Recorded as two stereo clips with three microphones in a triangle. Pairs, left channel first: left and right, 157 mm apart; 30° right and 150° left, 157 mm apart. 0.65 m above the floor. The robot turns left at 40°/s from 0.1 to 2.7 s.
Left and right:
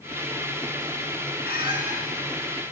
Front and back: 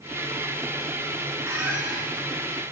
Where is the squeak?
80° left, 3.5 m; by 2.0 s 60° left, 3.5 m.